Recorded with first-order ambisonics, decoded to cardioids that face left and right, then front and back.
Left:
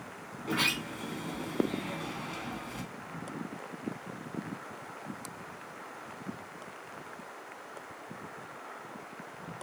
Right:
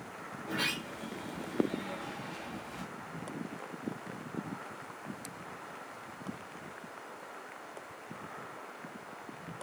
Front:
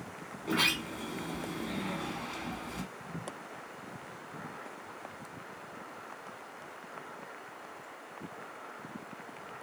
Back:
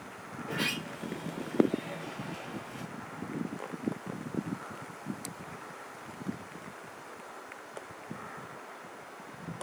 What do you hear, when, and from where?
0.4 s a sliding door: 30° left, 1.7 m